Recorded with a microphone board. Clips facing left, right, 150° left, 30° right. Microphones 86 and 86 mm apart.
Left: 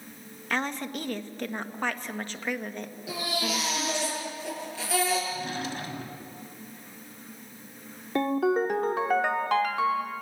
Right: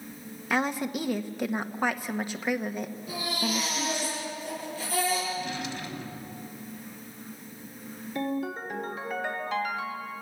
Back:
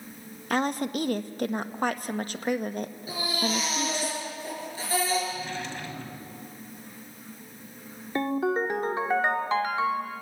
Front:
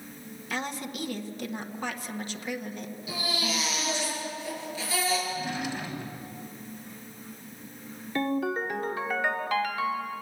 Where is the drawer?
50° left, 1.7 m.